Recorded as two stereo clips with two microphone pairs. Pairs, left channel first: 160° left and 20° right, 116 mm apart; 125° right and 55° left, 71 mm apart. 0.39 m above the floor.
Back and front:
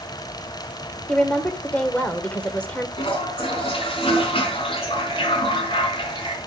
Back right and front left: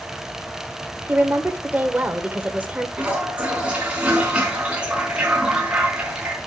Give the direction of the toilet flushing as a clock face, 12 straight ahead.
8 o'clock.